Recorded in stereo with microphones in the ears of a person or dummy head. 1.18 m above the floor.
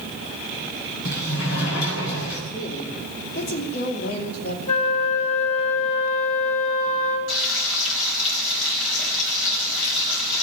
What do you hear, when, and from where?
1.1 s a sliding door: 85° left, 5.5 m
2.5 s a woman speaking: 45° left (ahead or behind), 2.5 m
4.7 s a flute: 45° left (ahead or behind), 3 m
7.3 s frying: 80° left, 5 m